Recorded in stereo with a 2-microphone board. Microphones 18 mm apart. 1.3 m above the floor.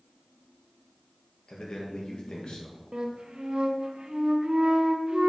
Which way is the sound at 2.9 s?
70° right (ahead or behind).